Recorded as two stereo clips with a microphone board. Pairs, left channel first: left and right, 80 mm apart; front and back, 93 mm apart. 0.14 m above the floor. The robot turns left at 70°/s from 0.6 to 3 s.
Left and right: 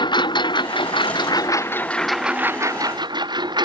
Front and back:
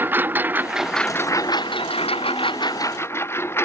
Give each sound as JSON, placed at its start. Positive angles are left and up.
{"t": 0.0, "sound": "a lawn mower", "azimuth_deg": 110}